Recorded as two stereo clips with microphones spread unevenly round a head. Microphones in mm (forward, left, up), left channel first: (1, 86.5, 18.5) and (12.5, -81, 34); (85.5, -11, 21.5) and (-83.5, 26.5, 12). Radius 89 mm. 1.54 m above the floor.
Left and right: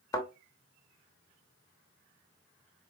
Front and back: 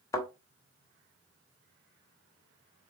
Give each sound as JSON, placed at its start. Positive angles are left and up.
{"t": 0.1, "sound": "a thud", "azimuth_deg": 30, "distance_m": 1.0}